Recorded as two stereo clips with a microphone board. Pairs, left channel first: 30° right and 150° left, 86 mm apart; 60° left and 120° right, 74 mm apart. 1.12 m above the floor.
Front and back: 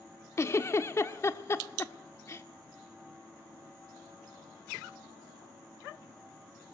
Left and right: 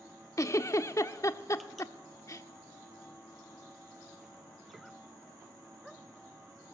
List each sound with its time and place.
0.4 s a giggle: 20° left, 1.3 m